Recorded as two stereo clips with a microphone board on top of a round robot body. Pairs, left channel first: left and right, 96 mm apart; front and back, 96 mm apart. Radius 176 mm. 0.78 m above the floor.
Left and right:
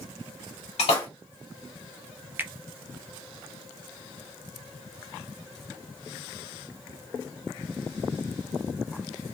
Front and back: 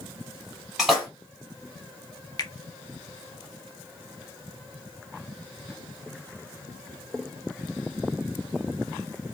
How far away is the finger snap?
About 0.7 m.